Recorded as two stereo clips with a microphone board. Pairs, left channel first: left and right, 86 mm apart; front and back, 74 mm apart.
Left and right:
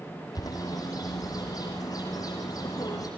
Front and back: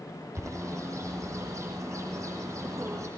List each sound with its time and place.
0.3 s a bird: 135° left, 5 m